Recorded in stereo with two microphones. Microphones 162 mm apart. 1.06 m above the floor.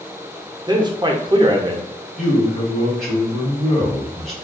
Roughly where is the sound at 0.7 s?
Right.